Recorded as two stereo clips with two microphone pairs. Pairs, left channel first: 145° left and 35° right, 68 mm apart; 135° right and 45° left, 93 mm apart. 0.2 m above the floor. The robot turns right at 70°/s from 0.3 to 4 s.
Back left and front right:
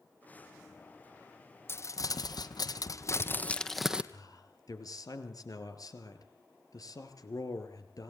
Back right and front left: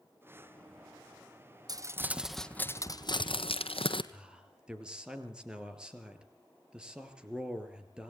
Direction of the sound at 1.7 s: 90° left.